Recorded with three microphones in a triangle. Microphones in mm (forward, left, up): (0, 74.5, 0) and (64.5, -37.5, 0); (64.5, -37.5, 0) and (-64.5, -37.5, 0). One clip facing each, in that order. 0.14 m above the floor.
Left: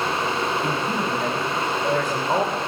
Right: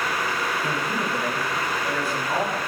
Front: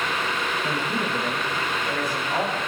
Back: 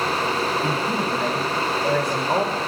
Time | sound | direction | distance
0.6 | a man speaking | 170° left | 8.5 m